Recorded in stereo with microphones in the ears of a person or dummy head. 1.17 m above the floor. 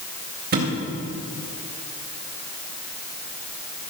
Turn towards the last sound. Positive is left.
turn(degrees=-45)  # may be behind; listen again after turning